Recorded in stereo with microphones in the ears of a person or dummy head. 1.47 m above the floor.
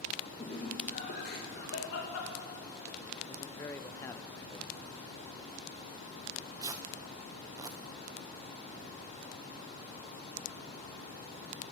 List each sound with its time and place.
0.4 s laughter: 35° left (ahead or behind), 2 m; by 3.0 s 80° left, 3 m
3.3 s a man speaking: 15° left (ahead or behind), 0.7 m
6.2 s tearing paper: 15° right (ahead or behind), 0.8 m